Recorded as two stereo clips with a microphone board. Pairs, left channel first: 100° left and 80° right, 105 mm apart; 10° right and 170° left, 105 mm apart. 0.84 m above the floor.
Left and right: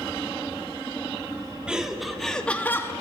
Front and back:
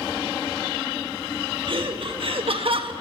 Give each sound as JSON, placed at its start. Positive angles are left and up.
{"t": 1.7, "sound": "laughter", "azimuth_deg": -160, "distance_m": 1.9}